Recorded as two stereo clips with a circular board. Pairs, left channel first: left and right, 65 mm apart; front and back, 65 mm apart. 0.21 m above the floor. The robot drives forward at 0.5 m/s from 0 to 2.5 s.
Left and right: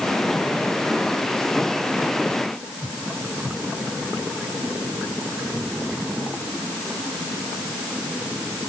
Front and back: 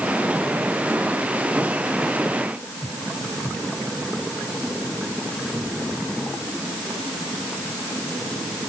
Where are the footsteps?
I don't hear footsteps.